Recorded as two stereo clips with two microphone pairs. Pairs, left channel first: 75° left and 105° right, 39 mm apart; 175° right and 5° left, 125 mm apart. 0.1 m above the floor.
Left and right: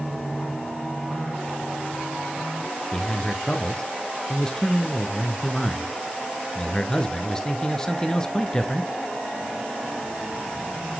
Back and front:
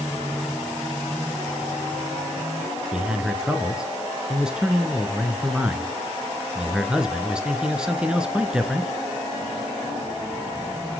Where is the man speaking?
80° left, 1.2 m.